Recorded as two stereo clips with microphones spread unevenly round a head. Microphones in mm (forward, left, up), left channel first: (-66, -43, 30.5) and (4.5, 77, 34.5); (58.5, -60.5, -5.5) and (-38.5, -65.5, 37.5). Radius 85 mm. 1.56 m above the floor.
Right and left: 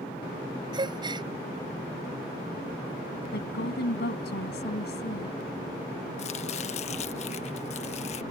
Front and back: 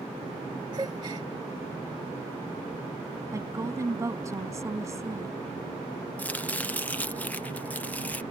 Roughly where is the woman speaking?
Behind right.